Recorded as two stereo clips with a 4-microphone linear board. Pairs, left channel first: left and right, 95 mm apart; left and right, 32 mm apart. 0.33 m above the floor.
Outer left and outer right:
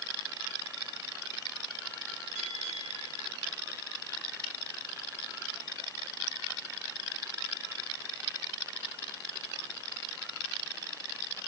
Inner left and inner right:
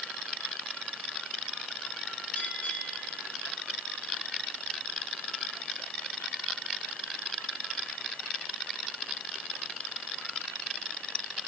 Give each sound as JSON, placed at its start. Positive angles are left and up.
{"t": 2.4, "sound": "a bell", "side_deg": 75, "distance_m": 9.0}